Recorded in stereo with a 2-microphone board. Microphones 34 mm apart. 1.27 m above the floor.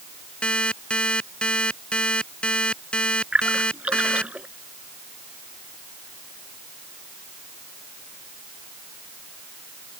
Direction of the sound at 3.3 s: 40° right (ahead or behind).